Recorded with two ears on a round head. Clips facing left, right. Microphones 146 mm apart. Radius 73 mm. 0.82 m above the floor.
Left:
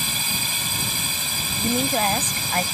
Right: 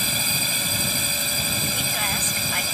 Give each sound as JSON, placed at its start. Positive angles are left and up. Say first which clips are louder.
{"t": 0.0, "sound": "a drone", "louder": "right 2 dB", "side_deg": -75}
{"t": 1.6, "sound": "a woman speaking", "louder": "left 8 dB", "side_deg": 35}